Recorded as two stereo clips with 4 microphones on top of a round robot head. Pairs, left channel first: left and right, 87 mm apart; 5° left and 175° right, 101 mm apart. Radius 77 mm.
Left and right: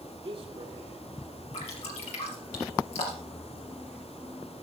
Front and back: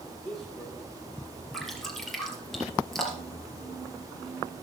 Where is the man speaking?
80° right, 3 m.